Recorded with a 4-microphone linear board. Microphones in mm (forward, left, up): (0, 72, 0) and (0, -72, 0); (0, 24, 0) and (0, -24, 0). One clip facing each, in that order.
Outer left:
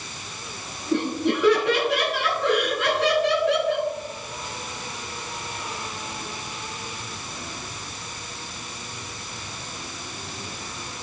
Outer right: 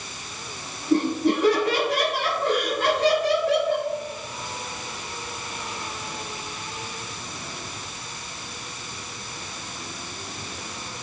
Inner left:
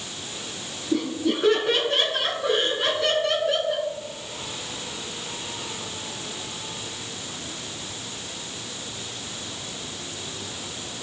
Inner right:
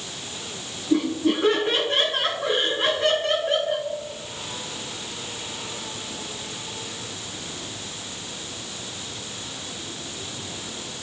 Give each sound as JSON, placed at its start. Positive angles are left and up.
{"t": 0.9, "sound": "laughter", "side_deg": -45, "distance_m": 8.5}